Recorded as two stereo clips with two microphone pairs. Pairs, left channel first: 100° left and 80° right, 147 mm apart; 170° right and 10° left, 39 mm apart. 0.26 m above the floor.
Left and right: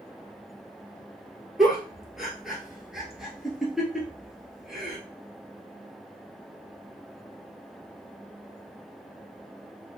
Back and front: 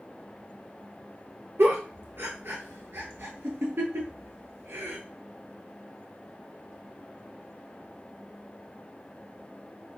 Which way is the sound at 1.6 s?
10° left.